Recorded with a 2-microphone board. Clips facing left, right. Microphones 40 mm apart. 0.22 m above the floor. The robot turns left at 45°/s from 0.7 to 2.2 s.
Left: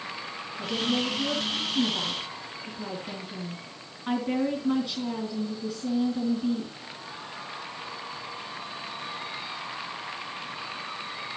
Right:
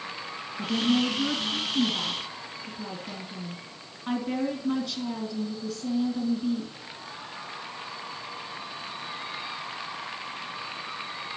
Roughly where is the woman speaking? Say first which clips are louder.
Right 3 dB; right.